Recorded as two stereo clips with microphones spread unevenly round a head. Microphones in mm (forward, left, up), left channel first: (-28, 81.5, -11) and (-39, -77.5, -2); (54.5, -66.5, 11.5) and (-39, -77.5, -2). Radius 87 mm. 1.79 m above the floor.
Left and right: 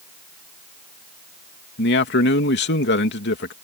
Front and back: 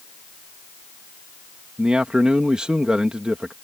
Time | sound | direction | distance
1.8 | a man speaking | 100° left | ?